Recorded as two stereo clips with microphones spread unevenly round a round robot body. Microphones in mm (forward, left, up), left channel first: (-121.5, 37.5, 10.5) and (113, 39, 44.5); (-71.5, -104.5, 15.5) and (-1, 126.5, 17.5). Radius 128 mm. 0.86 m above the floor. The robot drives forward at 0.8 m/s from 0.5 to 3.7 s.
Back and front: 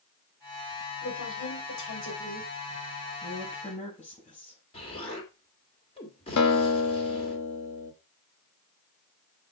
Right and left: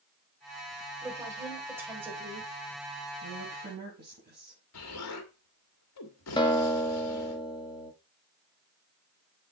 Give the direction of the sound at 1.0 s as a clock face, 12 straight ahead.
7 o'clock.